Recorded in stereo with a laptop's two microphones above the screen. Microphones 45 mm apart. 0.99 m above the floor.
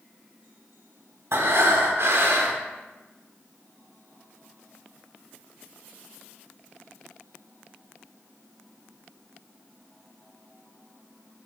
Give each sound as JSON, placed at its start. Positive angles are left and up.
{"t": 1.3, "sound": "breathing", "side_deg": -60, "distance_m": 0.9}